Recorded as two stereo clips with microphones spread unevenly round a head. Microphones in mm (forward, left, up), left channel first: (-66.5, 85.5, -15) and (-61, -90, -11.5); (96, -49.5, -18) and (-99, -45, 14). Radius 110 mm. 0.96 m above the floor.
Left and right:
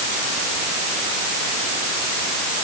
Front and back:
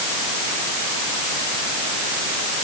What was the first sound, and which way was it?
Only background noise.